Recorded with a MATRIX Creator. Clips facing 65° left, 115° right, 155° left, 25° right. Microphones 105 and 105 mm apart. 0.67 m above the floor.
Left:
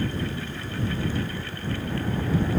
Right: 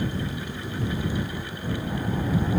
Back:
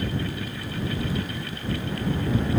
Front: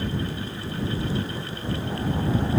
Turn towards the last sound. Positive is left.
No sound to turn to.